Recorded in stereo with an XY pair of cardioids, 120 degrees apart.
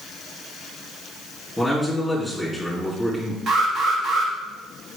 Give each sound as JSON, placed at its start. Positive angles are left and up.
{"t": 1.6, "sound": "a man speaking", "azimuth_deg": 0, "distance_m": 3.0}
{"t": 3.5, "sound": "an alarm", "azimuth_deg": -55, "distance_m": 2.0}